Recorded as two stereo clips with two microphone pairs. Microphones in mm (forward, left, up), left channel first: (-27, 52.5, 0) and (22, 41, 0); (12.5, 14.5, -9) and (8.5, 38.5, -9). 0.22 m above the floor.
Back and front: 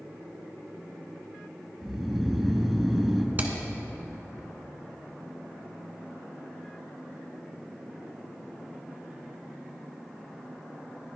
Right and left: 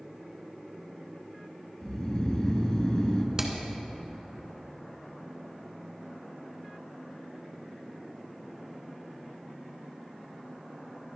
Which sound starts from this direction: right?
Snoring, at 1.8 s.